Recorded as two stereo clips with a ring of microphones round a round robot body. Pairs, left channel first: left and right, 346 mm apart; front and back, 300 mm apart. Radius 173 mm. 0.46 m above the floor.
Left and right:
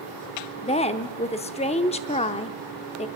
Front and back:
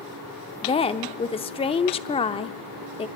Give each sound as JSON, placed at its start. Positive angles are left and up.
{"t": 0.6, "sound": "a woman speaking", "azimuth_deg": 45, "distance_m": 0.7}